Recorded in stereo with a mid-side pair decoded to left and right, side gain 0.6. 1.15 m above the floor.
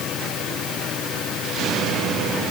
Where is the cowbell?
I don't hear a cowbell.